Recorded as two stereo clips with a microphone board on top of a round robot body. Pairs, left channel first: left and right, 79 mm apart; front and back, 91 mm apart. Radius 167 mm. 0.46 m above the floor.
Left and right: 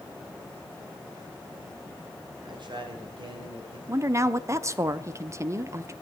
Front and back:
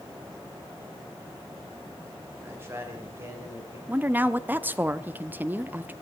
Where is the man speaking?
115° right, 2.5 m.